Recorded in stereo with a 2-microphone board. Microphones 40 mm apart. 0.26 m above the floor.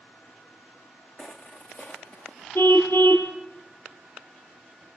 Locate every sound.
1.2 s footsteps: 30° left (ahead or behind), 1.2 m; by 2.5 s 45° left (ahead or behind), 2.0 m
2.5 s a car horn: 70° left (ahead or behind), 2 m